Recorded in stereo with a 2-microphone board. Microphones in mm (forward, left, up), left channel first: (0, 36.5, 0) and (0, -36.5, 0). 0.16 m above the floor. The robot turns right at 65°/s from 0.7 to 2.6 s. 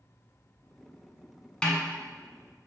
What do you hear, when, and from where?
1.6 s a snare drum: 10° left (ahead or behind), 0.8 m; by 1.8 s 20° left (ahead or behind), 0.8 m